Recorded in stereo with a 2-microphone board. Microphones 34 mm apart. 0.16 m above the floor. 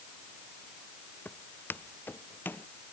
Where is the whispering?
I don't hear whispering.